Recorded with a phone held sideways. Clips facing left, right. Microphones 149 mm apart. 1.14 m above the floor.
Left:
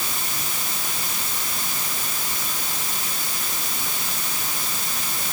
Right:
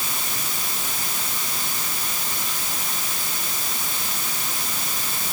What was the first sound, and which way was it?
Only background noise.